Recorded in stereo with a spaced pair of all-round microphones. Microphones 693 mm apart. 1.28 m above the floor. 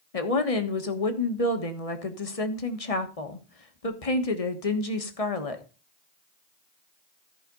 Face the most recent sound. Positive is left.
turn(degrees=55)  # may be behind; listen again after turning